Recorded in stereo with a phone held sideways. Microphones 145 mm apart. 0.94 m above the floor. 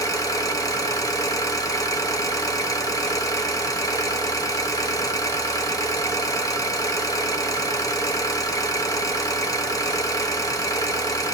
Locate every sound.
0.0 s an engine running: 25° left (ahead or behind), 0.9 m